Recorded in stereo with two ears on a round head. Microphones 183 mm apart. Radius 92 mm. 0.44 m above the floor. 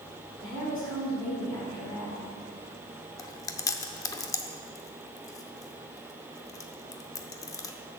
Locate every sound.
0.4 s a woman speaking: 20° left (ahead or behind), 4.5 m
3.2 s chewing: 15° left (ahead or behind), 0.6 m